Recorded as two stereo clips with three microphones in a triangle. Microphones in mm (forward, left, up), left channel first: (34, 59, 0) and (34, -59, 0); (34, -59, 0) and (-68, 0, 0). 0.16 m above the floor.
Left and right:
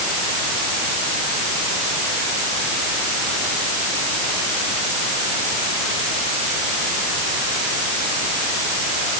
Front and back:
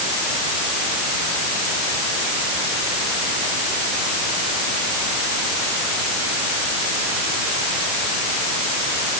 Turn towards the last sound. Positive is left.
No sound to turn to.